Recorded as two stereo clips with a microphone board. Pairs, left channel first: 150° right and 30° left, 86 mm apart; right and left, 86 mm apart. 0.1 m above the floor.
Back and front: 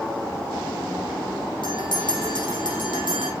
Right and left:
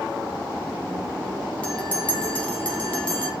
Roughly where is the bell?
Behind.